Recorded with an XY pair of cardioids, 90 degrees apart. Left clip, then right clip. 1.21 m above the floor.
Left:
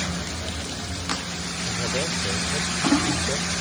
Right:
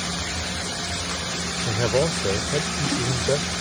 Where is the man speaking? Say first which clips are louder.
Right 5 dB; 65° right.